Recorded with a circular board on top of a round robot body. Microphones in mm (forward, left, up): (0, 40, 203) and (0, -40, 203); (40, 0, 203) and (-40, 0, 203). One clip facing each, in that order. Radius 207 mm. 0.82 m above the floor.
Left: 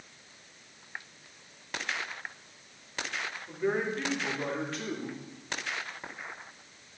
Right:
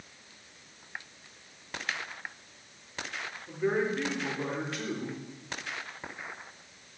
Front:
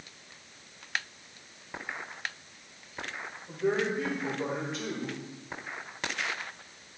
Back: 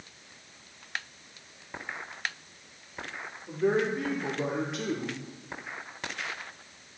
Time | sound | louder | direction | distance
3.5 | a man speaking | right 2 dB, back 2 dB | 170° right | 3.5 m